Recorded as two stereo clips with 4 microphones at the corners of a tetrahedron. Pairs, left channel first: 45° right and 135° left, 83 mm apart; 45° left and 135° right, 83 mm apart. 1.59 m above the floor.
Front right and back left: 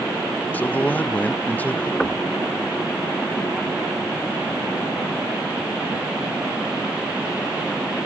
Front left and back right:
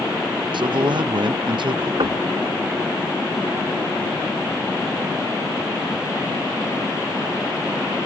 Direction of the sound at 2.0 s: 125° right.